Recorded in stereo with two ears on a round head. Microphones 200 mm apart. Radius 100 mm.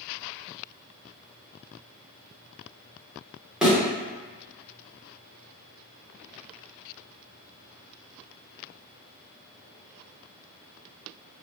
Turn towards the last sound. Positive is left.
turn(degrees=-5)  # may be behind; listen again after turning